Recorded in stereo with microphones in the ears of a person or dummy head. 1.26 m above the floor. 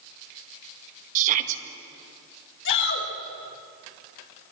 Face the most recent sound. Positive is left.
turn(degrees=65)  # may be behind; listen again after turning